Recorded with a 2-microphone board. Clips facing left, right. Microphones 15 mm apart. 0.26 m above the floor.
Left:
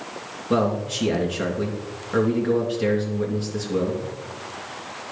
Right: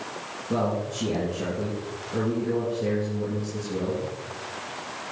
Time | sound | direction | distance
0.5 | a man speaking | 70° left (ahead or behind) | 3 m